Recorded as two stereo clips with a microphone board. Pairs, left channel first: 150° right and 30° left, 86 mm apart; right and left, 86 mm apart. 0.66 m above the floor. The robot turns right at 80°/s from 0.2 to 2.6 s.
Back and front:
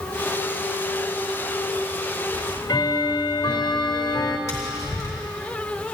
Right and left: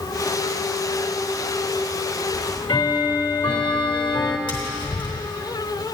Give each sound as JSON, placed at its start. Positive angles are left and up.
{"t": 2.3, "sound": "ticking", "azimuth_deg": -130, "distance_m": 0.8}
{"t": 4.5, "sound": "tapping", "azimuth_deg": -95, "distance_m": 2.5}